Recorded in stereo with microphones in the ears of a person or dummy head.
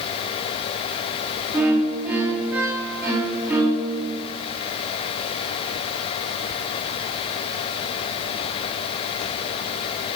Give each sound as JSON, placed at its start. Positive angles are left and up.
{"t": 1.5, "sound": "a violin", "side_deg": -5, "distance_m": 2.0}